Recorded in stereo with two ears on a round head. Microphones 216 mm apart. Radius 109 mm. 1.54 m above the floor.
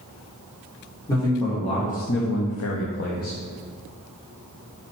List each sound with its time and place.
1.1 s a man speaking: 15° left (ahead or behind), 1.7 m; by 3.4 s 35° left (ahead or behind), 1.1 m